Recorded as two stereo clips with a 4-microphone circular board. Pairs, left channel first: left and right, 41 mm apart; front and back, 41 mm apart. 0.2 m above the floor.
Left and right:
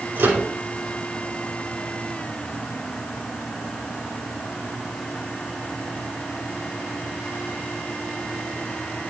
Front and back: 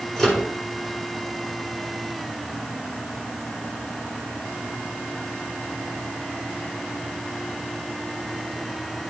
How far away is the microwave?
About 4.5 m.